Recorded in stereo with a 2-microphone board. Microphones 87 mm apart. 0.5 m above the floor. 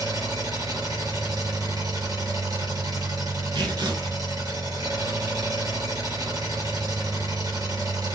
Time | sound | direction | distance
0.0 | an engine running | 45° right (ahead or behind) | 4.5 m
3.5 | tearing paper | 65° right (ahead or behind) | 2.5 m